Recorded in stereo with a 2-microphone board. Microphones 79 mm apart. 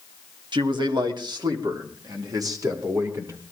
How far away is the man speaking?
About 2 m.